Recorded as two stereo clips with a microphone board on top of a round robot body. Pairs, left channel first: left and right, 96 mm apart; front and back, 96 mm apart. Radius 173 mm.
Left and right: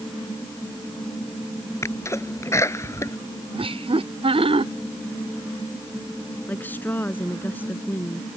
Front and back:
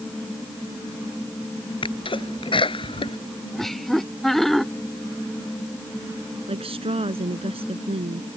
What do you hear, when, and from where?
1.8 s a sneeze: 30° left
3.5 s laughter: 90° right
6.5 s a woman speaking: 165° left